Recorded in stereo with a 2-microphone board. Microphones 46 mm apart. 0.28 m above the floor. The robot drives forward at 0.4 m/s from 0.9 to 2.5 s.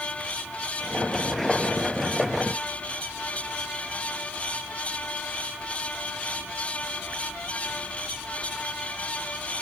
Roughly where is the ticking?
I don't hear ticking.